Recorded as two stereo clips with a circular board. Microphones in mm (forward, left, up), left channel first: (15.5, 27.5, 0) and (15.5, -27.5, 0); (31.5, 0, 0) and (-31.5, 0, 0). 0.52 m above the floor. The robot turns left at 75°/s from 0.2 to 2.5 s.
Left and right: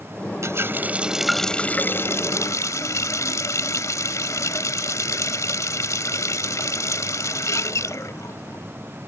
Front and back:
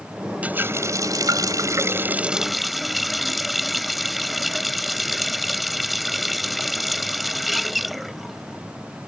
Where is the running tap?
115° right; by 8.7 s 90° left.